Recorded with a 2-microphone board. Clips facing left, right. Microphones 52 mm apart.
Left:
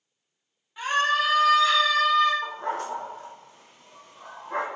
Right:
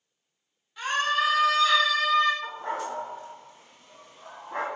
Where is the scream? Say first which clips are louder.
Left 2 dB; 20° left (ahead or behind), 1.7 m; by 2.3 s 5° left (ahead or behind), 2.5 m.